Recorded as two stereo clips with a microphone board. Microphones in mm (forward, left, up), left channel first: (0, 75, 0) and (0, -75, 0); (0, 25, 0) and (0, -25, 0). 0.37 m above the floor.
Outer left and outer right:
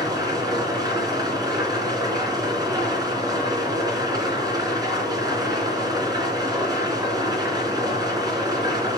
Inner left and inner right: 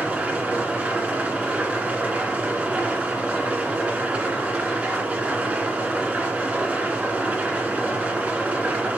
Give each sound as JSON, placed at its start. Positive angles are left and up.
{"t": 0.0, "sound": "an engine running", "side_deg": -25, "distance_m": 2.5}